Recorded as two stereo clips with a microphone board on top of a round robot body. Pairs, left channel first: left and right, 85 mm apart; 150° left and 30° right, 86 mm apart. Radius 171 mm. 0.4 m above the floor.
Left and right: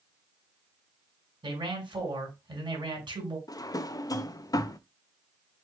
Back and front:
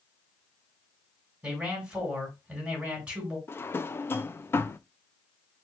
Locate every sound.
1.4 s a man speaking: 110° right, 3 m
3.5 s a drawer: 100° left, 0.6 m